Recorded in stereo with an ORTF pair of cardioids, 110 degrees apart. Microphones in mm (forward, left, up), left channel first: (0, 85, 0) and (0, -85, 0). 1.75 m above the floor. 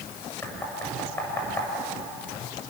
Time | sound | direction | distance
0.4 | knocking | 15° left | 7.5 m